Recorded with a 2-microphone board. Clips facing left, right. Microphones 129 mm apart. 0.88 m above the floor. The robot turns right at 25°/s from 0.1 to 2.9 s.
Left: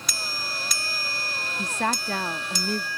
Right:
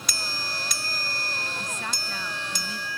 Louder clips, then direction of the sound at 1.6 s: Left 7 dB; 85° left.